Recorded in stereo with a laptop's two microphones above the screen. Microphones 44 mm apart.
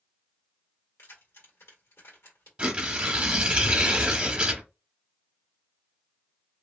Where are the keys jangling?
85° left, 1.7 m.